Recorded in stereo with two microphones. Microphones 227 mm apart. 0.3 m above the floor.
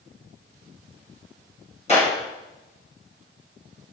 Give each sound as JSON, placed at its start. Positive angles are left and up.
{"t": 1.9, "sound": "a clap", "side_deg": 30, "distance_m": 3.0}